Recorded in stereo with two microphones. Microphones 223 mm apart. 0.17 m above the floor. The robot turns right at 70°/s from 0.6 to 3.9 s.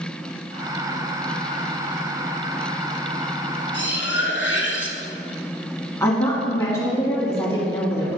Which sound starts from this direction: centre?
A woman speaking, at 6.0 s.